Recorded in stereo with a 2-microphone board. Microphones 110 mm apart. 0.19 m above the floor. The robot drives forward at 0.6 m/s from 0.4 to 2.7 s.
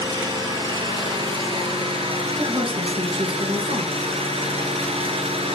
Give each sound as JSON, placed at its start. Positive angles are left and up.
{"t": 0.0, "sound": "an engine running", "side_deg": -40, "distance_m": 2.5}
{"t": 2.4, "sound": "a woman speaking", "side_deg": -50, "distance_m": 2.5}